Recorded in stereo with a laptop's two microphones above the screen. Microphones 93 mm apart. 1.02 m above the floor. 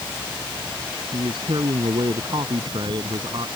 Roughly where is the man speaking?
Right.